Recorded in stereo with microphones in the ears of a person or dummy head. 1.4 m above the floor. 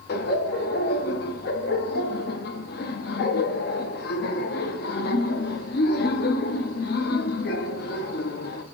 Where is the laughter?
60° left (ahead or behind), 0.7 m.